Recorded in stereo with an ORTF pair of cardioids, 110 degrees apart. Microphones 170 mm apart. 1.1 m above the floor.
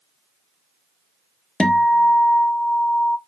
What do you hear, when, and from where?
1.6 s a guitar: 5° left, 0.6 m